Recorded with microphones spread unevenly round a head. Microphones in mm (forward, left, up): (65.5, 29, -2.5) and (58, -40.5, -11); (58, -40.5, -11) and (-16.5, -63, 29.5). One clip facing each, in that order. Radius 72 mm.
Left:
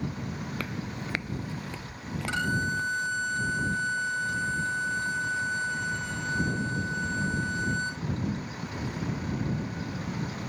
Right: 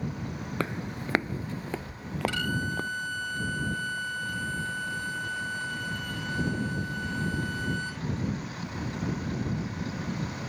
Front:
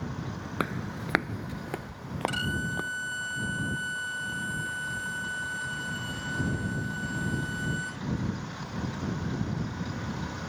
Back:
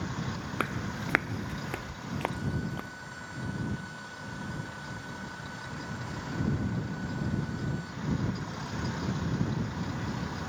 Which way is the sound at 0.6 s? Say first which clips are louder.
Right 3 dB, front 2 dB; 110° right.